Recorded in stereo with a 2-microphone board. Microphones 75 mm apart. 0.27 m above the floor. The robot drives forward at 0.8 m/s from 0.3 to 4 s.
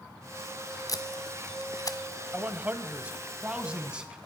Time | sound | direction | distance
0.9 | tape being pulled | 50° left (ahead or behind) | 1.2 m
2.3 | a man speaking | 25° right (ahead or behind) | 1.0 m